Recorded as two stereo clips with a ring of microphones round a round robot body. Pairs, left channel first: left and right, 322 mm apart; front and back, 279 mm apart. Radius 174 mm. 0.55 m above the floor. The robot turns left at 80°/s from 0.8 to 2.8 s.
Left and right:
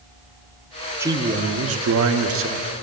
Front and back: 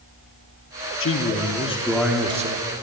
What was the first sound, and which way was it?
A man speaking, 10° right.